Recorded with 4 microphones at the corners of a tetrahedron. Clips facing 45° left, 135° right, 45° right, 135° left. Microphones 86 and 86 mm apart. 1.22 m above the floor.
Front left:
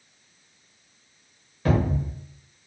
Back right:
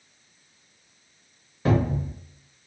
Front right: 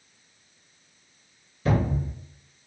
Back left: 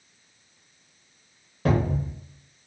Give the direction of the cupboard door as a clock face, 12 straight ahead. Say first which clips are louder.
Even, back left 1 dB; 7 o'clock.